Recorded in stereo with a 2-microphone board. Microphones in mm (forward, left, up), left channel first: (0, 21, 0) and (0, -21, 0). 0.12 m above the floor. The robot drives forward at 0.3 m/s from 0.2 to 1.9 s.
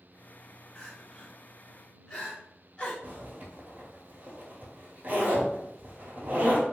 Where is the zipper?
40° right (ahead or behind), 1.0 m.